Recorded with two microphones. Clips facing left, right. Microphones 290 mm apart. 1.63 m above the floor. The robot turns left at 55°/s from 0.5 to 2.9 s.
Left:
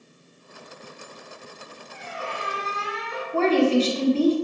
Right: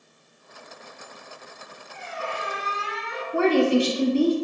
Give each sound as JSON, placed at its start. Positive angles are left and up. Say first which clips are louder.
{"t": 1.9, "sound": "a squeak", "louder": "right 1 dB", "azimuth_deg": 120, "distance_m": 0.8}
{"t": 3.3, "sound": "a woman speaking", "louder": "even", "side_deg": -15, "distance_m": 0.6}